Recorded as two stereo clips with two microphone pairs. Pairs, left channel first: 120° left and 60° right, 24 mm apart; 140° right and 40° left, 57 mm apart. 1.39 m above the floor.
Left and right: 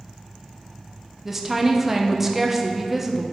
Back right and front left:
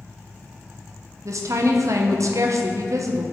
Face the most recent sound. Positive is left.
turn(degrees=20)